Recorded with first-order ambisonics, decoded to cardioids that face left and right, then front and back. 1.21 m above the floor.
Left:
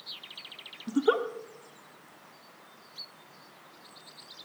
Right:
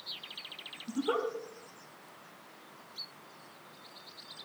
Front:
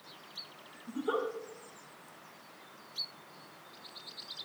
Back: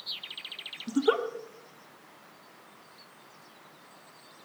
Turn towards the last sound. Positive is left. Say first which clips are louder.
# left 6 dB, back 7 dB
turn(degrees=130)